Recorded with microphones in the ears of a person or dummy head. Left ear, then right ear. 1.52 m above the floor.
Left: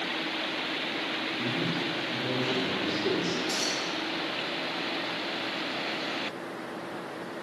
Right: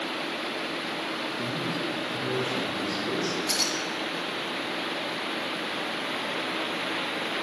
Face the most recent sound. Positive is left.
turn(degrees=-55)  # may be behind; listen again after turning